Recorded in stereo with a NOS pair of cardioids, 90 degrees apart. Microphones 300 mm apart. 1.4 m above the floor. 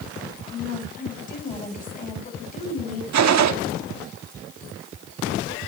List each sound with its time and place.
0.5 s a woman speaking: 25° left, 9.5 m
3.1 s a gunshot: 60° right, 2.0 m